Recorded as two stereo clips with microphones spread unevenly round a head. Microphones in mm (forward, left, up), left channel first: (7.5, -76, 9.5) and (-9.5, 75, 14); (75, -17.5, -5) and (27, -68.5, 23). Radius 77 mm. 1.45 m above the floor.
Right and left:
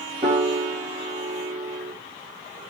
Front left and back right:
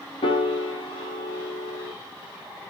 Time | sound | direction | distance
0.2 | a piano | 50° left | 1.7 m